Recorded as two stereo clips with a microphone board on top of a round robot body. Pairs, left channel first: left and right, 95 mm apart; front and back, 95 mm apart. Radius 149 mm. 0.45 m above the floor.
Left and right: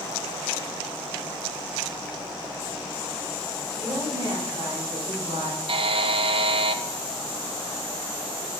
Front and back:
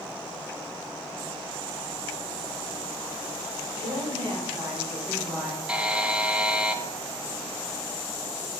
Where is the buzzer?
100° right, 0.5 m.